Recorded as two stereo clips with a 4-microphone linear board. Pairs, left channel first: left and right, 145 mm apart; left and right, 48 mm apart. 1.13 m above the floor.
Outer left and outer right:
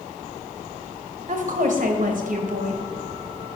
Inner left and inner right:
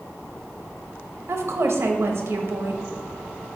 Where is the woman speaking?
65° right (ahead or behind), 1.0 m.